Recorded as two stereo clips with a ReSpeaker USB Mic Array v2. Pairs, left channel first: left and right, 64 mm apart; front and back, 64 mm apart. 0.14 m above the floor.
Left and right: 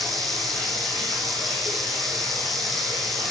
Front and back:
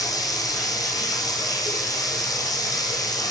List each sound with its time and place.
0.0 s running water: 5° left, 3 m